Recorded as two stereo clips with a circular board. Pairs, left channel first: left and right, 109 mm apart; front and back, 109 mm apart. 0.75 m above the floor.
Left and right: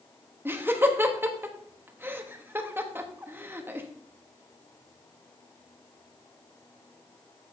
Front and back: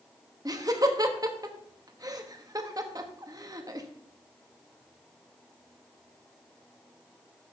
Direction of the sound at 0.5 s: 150° right.